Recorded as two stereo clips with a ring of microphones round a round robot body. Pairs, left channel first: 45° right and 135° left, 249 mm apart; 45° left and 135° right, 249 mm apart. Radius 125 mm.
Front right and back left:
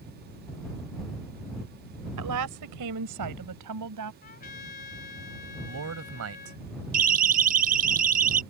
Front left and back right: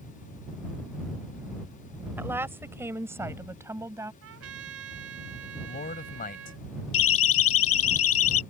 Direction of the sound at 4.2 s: 100° right.